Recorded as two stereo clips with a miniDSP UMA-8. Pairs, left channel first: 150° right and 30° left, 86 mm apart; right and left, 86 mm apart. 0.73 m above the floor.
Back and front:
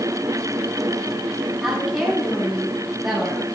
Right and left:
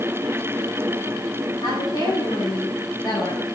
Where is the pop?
No pop in this recording.